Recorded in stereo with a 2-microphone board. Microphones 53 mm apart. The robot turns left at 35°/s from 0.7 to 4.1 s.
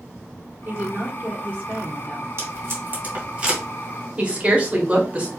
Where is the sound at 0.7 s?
95° right, 1.3 m; by 2.3 s 150° right, 1.3 m.